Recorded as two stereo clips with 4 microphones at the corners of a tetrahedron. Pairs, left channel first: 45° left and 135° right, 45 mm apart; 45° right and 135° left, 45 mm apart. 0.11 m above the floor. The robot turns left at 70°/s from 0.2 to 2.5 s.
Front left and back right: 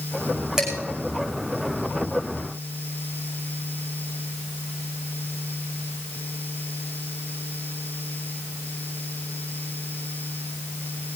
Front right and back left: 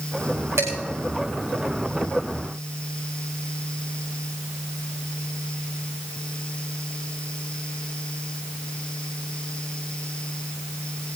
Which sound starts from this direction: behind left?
Dishes clattering, at 0.6 s.